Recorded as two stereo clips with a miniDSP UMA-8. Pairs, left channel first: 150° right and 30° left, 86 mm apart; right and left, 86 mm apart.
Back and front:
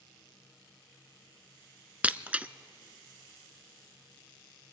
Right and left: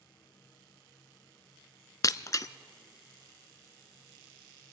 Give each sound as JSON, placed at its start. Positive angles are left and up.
{"t": 2.0, "sound": "breaking glass", "azimuth_deg": -45, "distance_m": 0.6}